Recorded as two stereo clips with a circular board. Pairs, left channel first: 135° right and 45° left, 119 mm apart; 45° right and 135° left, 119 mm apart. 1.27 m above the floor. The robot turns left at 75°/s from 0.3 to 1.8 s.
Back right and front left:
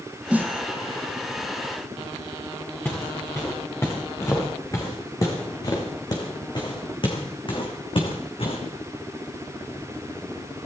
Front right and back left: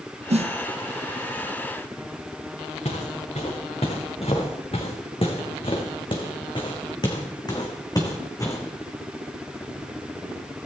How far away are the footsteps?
About 5 m.